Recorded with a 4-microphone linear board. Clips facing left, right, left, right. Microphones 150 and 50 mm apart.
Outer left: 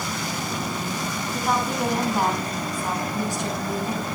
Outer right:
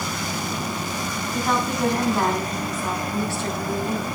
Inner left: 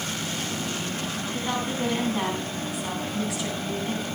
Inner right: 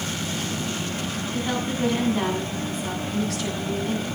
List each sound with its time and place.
1.3 s a woman speaking: 5° left (ahead or behind), 7.5 m; by 4.2 s 20° left (ahead or behind), 7 m